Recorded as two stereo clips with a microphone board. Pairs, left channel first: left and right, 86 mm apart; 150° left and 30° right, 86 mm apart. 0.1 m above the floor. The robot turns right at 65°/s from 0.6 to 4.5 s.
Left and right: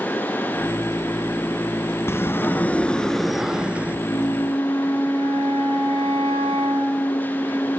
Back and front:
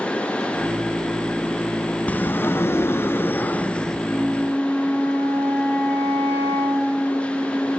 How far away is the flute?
About 6 m.